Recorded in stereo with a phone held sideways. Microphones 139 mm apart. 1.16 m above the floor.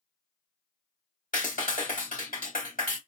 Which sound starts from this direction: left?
A clap, at 1.3 s.